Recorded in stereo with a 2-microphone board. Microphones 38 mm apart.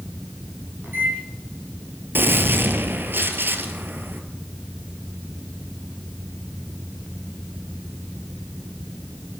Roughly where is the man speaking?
I don't hear a man speaking.